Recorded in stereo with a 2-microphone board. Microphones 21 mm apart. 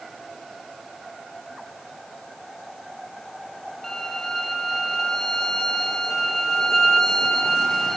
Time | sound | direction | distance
3.8 | a violin | 20° left (ahead or behind) | 3.5 m